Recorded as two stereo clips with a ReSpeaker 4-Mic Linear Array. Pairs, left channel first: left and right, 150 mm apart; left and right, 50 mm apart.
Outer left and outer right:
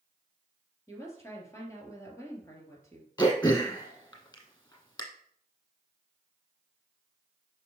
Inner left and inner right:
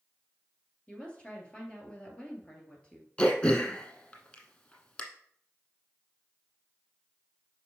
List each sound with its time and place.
0.9 s a woman speaking: 20° left (ahead or behind), 2.5 m
3.2 s throat clearing: 25° left (ahead or behind), 1.5 m